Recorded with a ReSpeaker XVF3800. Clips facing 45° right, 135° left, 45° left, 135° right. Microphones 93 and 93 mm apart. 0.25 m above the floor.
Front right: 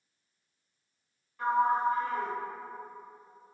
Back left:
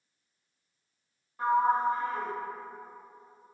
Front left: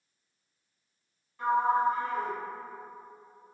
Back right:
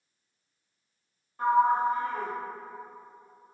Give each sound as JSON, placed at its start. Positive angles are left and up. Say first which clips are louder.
{"t": 1.4, "sound": "a sliding door", "louder": "back left 1 dB, back right 2 dB", "azimuth_deg": 180, "distance_m": 0.7}